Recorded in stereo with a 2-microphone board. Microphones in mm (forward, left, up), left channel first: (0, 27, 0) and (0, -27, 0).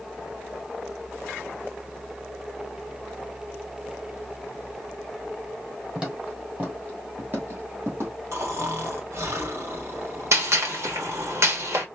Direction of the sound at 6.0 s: 20° right (ahead or behind).